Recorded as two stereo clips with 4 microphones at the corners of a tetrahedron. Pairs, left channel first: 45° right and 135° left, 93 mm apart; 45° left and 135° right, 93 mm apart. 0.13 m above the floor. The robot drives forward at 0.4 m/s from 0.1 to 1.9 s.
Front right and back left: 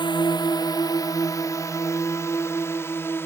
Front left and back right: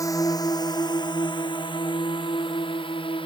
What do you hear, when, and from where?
0.0 s a drone: 10° right; by 3.3 s 20° left